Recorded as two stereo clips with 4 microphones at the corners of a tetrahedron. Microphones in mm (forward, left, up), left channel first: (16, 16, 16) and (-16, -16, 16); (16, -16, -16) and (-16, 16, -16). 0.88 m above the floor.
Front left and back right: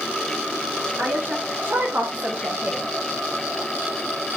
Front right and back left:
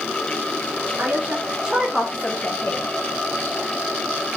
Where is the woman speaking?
175° right, 1.6 m; by 2.9 s 65° right, 1.2 m.